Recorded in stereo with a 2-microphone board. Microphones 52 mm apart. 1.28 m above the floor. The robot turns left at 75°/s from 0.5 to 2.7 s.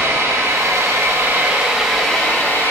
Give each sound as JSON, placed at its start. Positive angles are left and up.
{"t": 0.0, "sound": "an engine running", "azimuth_deg": -85, "distance_m": 4.0}